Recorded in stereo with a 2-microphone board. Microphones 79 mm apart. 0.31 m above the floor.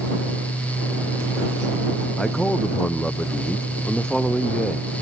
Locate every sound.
2.2 s a man speaking: 10° left (ahead or behind)